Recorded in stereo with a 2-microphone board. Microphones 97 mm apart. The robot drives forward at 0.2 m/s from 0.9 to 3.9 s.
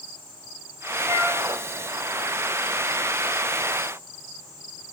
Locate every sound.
1.0 s a flute: 10° right (ahead or behind), 1.4 m